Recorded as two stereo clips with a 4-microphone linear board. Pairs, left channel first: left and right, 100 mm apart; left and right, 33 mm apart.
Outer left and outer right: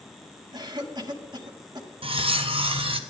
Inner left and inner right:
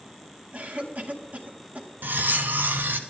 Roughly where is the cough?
Right.